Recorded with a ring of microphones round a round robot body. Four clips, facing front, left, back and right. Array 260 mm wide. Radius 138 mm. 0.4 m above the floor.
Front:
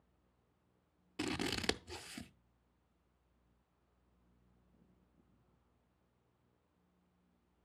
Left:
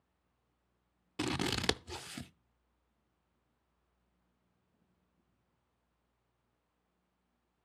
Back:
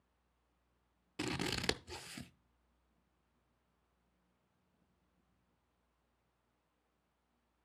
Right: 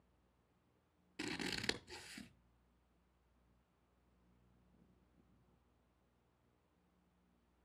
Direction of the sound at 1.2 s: 90° left.